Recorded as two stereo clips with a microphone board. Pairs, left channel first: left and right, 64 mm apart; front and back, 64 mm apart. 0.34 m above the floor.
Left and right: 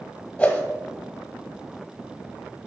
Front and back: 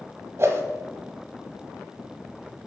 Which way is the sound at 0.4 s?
155° left.